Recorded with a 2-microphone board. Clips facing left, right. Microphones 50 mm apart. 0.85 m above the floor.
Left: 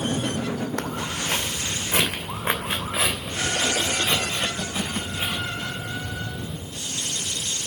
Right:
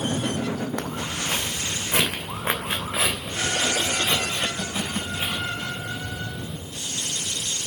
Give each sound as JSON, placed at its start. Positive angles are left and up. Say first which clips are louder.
{"t": 0.8, "sound": "footsteps", "louder": "left 1 dB", "side_deg": -5, "distance_m": 1.7}